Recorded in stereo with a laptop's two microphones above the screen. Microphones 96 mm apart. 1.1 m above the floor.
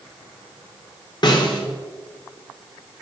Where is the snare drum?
50° left (ahead or behind), 2.5 m.